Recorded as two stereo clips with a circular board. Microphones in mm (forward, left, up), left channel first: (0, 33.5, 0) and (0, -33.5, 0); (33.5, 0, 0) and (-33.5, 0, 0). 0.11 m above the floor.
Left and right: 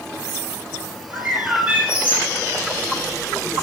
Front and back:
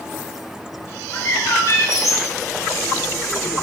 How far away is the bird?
About 3.5 m.